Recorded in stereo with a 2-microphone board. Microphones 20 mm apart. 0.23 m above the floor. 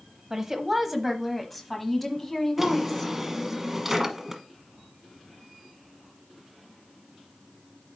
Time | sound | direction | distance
0.3 | a woman speaking | 20° right (ahead or behind) | 1.0 m
2.6 | a drawer | 10° right (ahead or behind) | 1.2 m